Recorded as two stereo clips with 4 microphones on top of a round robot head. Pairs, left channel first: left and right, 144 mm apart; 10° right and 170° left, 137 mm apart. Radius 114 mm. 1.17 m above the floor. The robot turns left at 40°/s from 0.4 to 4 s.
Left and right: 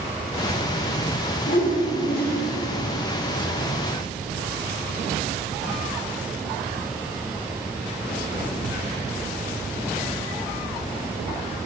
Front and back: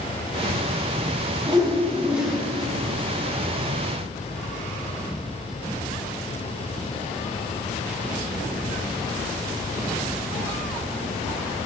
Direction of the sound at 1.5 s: 115° left.